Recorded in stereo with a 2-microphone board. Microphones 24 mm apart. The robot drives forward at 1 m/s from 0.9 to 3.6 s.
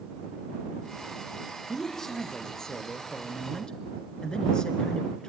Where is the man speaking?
20° left (ahead or behind), 4 m; by 5.3 s 35° left (ahead or behind), 2.5 m.